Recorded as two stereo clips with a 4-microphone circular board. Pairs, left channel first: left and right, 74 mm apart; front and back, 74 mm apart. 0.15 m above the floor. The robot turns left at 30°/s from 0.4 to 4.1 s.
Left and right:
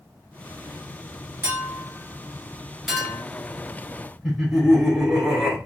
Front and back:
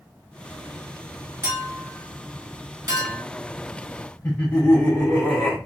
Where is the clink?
135° right, 1.4 m; by 3.2 s 170° left, 1.4 m.